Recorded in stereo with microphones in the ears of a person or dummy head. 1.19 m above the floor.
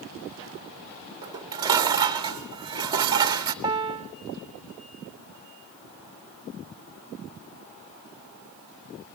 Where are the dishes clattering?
10° right (ahead or behind), 1.5 m.